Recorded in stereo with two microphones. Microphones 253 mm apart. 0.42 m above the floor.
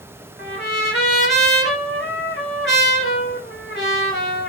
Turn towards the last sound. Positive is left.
turn(degrees=50)  # may be behind; listen again after turning